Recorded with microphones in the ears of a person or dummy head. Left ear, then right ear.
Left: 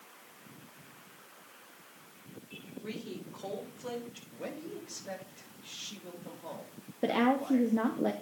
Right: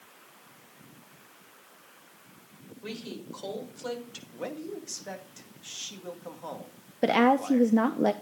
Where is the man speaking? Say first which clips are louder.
Right 5 dB; 40° right (ahead or behind), 1.9 m.